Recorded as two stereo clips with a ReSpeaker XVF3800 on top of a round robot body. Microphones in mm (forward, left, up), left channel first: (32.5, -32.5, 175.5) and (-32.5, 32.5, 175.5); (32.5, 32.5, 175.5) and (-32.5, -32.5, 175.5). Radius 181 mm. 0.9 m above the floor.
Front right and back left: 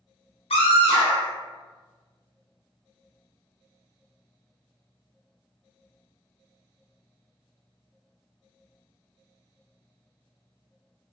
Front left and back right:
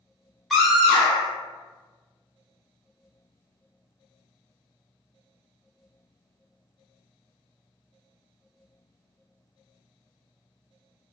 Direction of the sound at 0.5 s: 45° right.